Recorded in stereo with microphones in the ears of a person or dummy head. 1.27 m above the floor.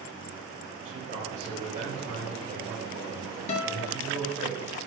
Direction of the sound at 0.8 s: 40° right (ahead or behind).